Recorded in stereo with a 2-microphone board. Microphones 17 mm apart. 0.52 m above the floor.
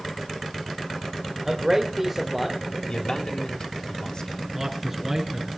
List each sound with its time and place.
1.4 s a man speaking: 25° right (ahead or behind), 2 m; by 2.6 s 10° left (ahead or behind), 1.9 m
2.9 s a man speaking: 55° left (ahead or behind), 2.5 m
4.5 s a man speaking: 5° right (ahead or behind), 7.5 m